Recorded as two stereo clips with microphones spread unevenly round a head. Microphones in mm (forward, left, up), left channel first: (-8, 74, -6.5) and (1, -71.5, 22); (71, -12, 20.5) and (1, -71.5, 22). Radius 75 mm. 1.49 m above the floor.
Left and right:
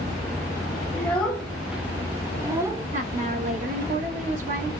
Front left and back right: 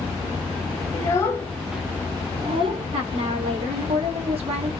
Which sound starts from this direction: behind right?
A woman speaking, at 2.9 s.